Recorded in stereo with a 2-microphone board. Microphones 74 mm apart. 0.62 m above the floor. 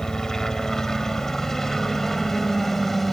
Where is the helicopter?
10° left (ahead or behind); by 3.1 s 5° left (ahead or behind).